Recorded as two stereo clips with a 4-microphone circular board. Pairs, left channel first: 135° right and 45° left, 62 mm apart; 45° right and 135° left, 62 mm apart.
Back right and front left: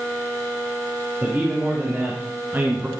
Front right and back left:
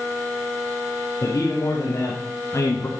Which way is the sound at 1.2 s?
20° right.